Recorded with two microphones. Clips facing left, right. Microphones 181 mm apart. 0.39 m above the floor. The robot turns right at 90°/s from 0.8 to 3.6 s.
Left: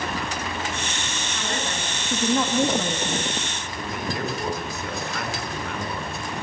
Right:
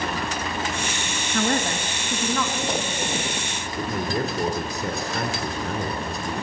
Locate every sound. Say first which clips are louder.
1.3 s a man speaking: right 8 dB; 70° right, 3 m; by 3.3 s 110° left, 3 m
3.8 s a man speaking: right 4 dB; 35° right (ahead or behind), 4.5 m